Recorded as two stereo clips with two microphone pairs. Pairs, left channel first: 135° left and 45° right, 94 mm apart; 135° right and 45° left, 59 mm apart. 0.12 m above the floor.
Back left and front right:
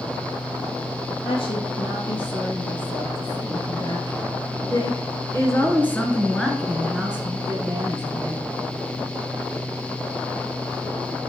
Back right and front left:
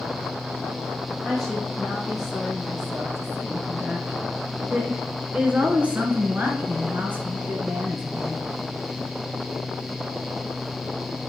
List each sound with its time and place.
1.2 s a woman speaking: 135° left, 3 m; by 8.5 s straight ahead, 1.6 m